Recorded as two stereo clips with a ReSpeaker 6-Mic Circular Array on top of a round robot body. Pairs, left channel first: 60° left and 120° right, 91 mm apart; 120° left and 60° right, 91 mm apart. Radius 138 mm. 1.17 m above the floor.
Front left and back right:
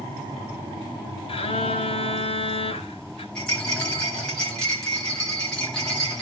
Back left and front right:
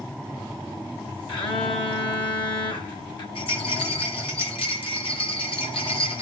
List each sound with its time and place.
1.3 s a phone buzzing: 85° left, 2.5 m
3.4 s a rattle: 140° left, 3 m